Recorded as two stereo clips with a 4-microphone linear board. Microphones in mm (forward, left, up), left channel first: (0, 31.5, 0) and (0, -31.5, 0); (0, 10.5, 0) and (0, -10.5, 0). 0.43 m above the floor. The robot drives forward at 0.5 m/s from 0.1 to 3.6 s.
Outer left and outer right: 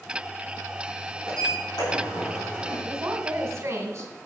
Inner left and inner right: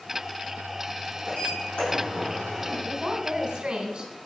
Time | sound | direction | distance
1.3 | a sliding door | 90° left | 5 m
2.8 | a woman speaking | 45° right (ahead or behind) | 1.7 m